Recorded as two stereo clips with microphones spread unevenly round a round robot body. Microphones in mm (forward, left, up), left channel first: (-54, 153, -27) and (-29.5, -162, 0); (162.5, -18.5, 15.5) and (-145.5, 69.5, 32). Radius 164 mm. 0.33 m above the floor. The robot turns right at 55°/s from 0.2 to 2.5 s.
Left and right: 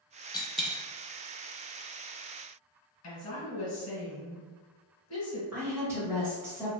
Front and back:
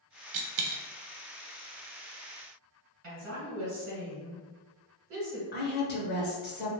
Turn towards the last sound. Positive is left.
turn(degrees=0)